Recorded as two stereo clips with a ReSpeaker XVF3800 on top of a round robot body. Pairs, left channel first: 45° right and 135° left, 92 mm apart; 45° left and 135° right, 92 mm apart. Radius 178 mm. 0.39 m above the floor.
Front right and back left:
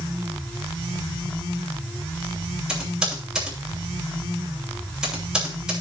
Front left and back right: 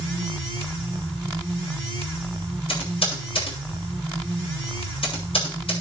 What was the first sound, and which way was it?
Typing on a keyboard, 55° left.